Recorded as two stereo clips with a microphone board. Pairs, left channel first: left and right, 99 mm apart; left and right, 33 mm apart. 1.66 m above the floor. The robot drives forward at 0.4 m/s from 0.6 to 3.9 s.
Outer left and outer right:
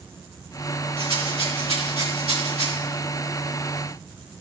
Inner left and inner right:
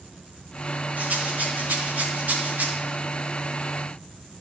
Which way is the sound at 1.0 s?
70° right (ahead or behind).